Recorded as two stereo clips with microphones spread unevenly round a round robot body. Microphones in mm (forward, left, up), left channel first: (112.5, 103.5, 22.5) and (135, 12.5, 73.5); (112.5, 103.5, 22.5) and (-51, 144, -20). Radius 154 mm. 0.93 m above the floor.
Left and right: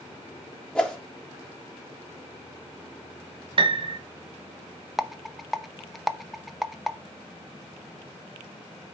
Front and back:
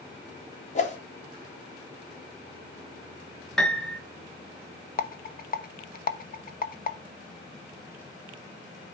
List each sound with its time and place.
0.8 s a whoosh: 35° left, 2.0 m
3.6 s a piano: 120° right, 0.6 m
5.0 s a rattle: 30° left, 0.9 m